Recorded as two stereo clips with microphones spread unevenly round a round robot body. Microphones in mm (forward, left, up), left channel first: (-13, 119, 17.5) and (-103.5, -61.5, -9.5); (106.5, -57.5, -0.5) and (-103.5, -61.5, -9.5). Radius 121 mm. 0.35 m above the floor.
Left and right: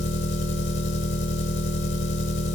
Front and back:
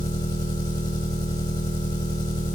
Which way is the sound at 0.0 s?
75° left.